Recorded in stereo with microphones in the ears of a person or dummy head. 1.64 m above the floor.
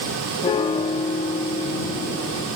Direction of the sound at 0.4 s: 20° left (ahead or behind).